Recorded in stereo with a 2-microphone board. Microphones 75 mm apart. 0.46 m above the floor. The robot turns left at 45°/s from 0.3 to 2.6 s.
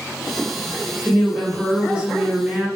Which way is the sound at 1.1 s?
5° right (ahead or behind).